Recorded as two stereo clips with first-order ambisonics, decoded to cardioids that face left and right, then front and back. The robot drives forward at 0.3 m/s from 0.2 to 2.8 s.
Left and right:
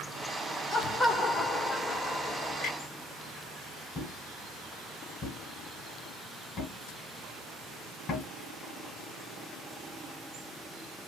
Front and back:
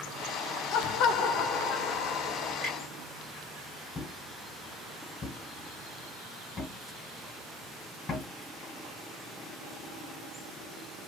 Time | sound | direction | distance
0.7 | laughter | 20° left | 1.1 m
2.6 | a clunk | 120° left | 2 m
4.0 | a thud | 60° left | 1.2 m